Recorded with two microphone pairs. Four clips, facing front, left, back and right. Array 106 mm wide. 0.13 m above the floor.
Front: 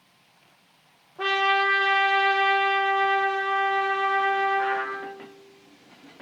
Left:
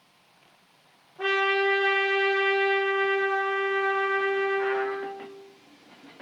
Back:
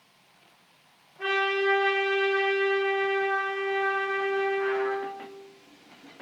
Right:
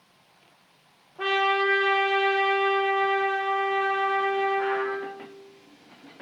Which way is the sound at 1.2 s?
35° right.